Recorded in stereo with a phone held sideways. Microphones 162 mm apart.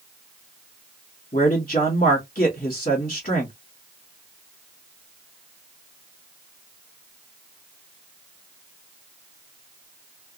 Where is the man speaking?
55° left (ahead or behind), 1.2 m.